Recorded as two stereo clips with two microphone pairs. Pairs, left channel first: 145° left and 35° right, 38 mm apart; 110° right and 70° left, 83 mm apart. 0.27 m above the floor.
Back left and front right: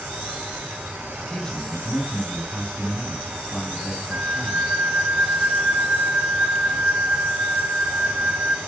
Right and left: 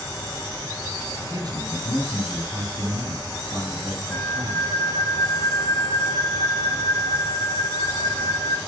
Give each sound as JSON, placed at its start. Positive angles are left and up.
{"t": 0.0, "sound": "an insect", "azimuth_deg": -65, "distance_m": 4.5}
{"t": 1.2, "sound": "a man speaking", "azimuth_deg": 80, "distance_m": 2.5}
{"t": 4.1, "sound": "a flute", "azimuth_deg": -40, "distance_m": 4.0}